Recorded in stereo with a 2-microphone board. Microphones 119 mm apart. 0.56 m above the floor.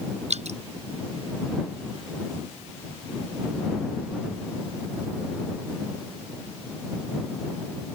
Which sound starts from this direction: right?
Dripping, at 0.3 s.